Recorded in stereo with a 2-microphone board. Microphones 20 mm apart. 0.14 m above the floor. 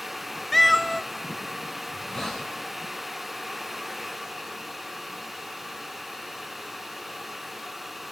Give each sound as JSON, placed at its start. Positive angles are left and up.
{"t": 0.5, "sound": "a cat meowing", "side_deg": 5, "distance_m": 0.9}
{"t": 1.9, "sound": "a hiss", "side_deg": 30, "distance_m": 7.5}